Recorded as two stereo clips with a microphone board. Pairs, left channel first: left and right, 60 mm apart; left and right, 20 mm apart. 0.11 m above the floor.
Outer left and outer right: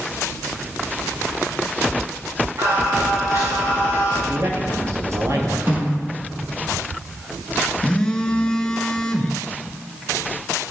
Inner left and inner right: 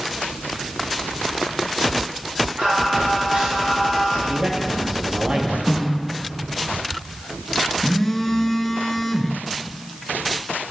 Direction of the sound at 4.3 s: 55° right (ahead or behind).